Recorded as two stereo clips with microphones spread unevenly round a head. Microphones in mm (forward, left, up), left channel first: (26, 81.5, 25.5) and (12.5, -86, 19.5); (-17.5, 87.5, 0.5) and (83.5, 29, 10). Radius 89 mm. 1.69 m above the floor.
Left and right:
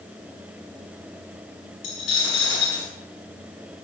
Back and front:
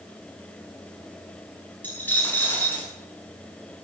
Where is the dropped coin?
75° left, 7.5 m.